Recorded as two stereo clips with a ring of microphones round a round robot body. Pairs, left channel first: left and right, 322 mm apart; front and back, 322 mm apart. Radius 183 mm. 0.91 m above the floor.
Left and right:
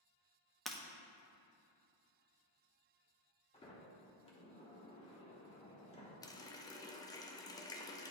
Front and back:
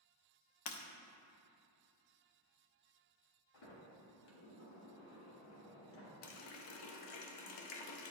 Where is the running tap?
10° left, 0.7 m.